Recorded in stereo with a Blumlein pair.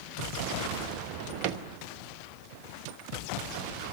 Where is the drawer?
40° right, 1.0 m.